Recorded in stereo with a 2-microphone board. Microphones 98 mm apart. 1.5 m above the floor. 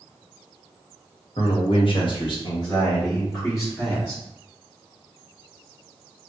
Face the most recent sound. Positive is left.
turn(degrees=25)  # may be behind; listen again after turning